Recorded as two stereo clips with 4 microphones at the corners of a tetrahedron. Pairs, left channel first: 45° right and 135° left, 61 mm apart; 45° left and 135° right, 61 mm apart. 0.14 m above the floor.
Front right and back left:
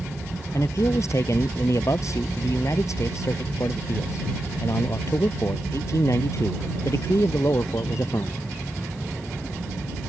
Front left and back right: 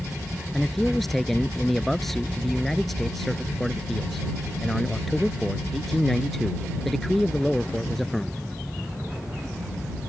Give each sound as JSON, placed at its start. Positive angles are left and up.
{"t": 0.5, "sound": "a man speaking", "azimuth_deg": -40}